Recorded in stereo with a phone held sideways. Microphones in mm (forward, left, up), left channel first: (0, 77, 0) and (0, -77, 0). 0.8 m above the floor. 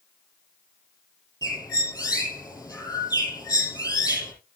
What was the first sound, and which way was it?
A bird, 20° left (ahead or behind).